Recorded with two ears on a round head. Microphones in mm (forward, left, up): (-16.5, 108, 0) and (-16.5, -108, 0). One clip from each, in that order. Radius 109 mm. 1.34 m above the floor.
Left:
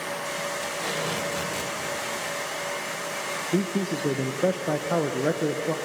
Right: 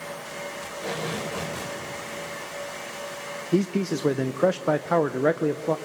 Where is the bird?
No bird in this recording.